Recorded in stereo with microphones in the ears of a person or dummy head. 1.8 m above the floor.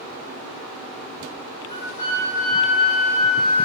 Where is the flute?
30° left (ahead or behind), 1.5 m.